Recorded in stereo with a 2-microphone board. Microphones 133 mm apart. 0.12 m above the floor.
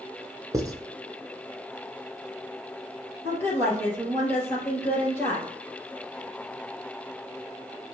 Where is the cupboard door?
I don't hear a cupboard door.